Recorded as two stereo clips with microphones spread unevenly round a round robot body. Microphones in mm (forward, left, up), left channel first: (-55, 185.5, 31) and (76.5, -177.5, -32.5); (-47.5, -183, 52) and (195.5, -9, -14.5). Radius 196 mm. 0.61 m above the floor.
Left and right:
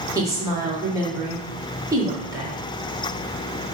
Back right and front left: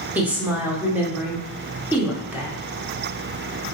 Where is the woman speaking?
15° right, 1.0 m.